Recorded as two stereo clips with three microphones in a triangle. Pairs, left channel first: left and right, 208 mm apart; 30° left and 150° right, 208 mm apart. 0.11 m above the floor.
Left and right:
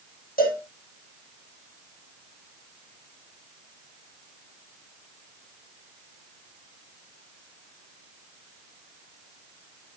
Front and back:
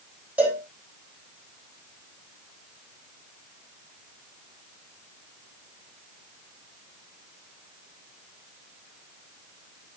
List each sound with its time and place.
0.4 s a cowbell: 130° left, 4.5 m